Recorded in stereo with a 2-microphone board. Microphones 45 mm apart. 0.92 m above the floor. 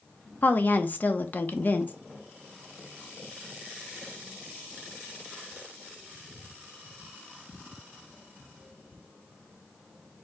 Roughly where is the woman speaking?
Left.